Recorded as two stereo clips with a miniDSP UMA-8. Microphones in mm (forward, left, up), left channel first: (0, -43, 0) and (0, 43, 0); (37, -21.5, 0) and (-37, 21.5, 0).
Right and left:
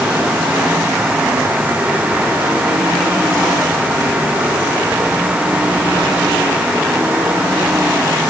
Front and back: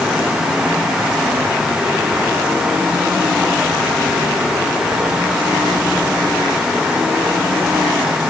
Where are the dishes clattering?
I don't hear dishes clattering.